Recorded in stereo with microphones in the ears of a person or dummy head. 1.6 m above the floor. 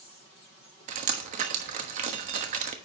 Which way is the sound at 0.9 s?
40° right (ahead or behind).